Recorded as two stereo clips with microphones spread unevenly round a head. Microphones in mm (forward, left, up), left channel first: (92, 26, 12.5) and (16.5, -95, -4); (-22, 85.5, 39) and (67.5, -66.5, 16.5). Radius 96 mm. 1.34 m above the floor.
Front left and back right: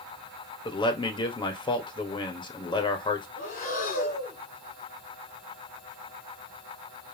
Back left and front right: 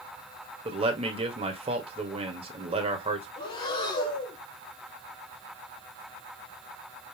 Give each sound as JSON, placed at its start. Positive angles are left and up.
{"t": 0.7, "sound": "a man speaking", "azimuth_deg": 0, "distance_m": 1.7}
{"t": 3.4, "sound": "breathing", "azimuth_deg": 70, "distance_m": 2.5}